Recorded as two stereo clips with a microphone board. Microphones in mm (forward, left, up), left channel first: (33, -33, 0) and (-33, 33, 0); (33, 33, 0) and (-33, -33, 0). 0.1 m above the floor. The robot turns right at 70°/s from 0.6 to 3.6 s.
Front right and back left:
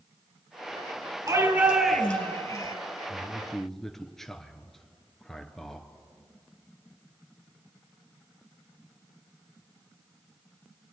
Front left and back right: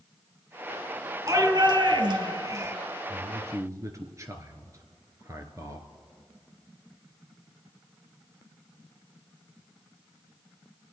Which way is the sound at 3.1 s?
165° right.